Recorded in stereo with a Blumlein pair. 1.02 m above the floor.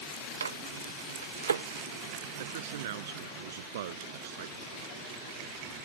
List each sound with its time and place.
0.4 s a microwave: 70° right
2.4 s a man speaking: 55° right